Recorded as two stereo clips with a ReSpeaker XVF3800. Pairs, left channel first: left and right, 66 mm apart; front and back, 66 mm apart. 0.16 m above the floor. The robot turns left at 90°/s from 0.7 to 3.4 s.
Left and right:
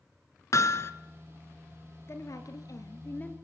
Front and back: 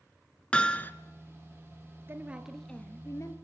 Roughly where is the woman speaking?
Behind left.